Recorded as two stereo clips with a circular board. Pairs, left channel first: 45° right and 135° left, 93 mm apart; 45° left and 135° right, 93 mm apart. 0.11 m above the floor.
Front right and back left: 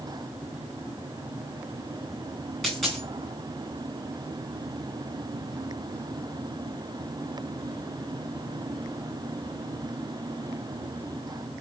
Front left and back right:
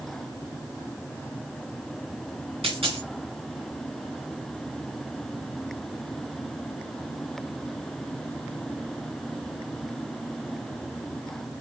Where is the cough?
No cough in this recording.